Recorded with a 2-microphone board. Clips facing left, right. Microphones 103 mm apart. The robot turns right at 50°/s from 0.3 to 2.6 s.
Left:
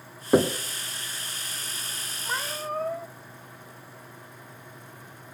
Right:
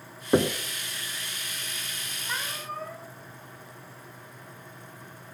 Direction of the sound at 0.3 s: 10° left (ahead or behind).